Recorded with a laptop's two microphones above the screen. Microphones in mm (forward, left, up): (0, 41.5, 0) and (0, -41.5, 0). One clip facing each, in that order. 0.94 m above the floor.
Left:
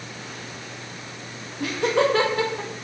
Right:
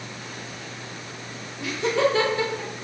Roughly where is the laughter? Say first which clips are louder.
Left 1 dB; left.